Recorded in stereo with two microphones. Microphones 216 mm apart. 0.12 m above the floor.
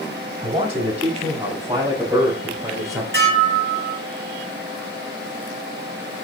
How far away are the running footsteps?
No running footsteps in this recording.